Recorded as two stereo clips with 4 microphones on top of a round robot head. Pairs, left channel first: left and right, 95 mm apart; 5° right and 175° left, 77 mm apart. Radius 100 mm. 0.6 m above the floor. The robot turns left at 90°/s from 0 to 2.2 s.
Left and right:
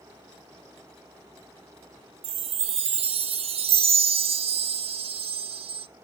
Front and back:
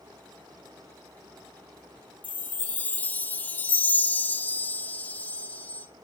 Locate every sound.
2.2 s a chime: 75° right, 0.7 m